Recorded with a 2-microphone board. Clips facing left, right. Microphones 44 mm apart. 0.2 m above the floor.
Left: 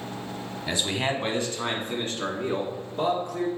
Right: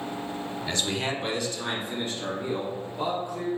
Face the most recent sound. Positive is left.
turn(degrees=65)  # may be behind; listen again after turning